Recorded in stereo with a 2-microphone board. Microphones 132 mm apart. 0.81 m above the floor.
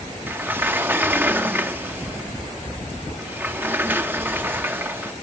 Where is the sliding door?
15° right (ahead or behind), 0.7 m.